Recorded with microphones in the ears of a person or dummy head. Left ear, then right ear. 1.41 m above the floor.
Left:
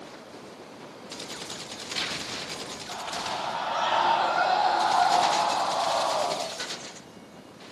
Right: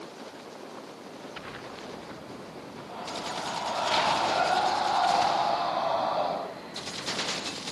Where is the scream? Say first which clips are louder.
Left 2 dB; 45° left (ahead or behind), 4.5 m; by 6.4 s 55° left (ahead or behind), 6.5 m.